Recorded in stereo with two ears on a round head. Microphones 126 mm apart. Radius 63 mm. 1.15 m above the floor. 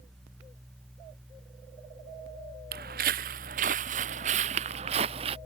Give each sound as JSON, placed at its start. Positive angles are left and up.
{"t": 2.7, "sound": "footsteps", "side_deg": -65}